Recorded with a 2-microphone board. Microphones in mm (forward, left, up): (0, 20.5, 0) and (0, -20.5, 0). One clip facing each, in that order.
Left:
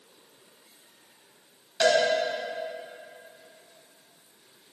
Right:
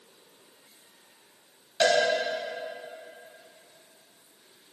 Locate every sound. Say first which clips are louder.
1.8 s a cowbell: left 1 dB; 20° right (ahead or behind), 3 m